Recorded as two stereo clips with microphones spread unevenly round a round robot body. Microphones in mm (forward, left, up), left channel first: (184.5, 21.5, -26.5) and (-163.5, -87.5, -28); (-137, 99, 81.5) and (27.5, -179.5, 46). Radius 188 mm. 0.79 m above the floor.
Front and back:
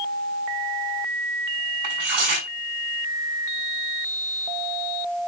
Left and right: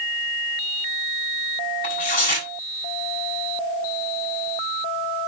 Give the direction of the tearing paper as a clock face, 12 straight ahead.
6 o'clock.